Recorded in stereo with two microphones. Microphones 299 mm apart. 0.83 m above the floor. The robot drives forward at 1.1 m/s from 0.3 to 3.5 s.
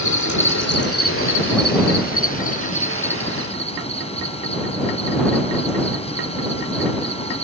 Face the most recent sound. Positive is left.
turn(degrees=20)  # may be behind; listen again after turning